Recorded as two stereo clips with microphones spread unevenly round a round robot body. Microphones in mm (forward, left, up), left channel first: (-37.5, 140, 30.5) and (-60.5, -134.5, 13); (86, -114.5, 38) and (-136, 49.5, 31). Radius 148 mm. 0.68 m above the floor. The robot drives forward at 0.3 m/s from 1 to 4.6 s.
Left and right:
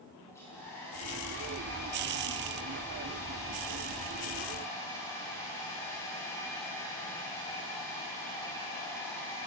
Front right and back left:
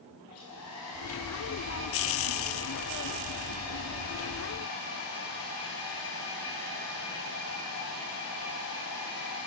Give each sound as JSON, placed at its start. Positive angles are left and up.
{"t": 0.3, "sound": "a hair dryer", "azimuth_deg": 5, "distance_m": 5.5}